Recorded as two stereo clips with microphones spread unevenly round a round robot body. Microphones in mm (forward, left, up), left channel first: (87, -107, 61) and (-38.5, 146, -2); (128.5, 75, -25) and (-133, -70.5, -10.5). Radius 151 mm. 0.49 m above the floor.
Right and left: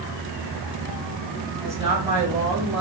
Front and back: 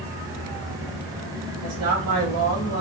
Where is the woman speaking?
165° right, 2.5 m; by 2.8 s straight behind, 2 m.